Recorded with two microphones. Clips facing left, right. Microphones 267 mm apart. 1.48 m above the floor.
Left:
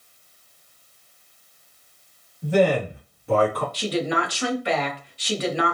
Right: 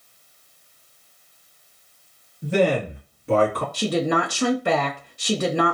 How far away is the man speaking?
About 2.5 m.